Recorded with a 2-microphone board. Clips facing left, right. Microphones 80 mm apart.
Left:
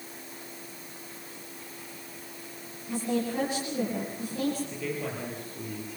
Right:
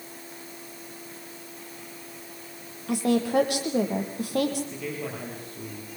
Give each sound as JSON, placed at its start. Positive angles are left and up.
{"t": 2.9, "sound": "a woman speaking", "side_deg": -80, "distance_m": 7.0}
{"t": 4.7, "sound": "a man speaking", "side_deg": 0, "distance_m": 7.5}